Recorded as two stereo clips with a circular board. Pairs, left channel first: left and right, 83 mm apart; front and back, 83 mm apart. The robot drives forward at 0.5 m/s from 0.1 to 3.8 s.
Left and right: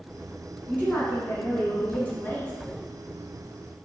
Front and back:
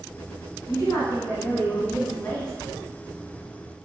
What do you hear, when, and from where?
0.7 s a woman speaking: 25° left, 1.6 m; by 2.6 s 70° left, 1.2 m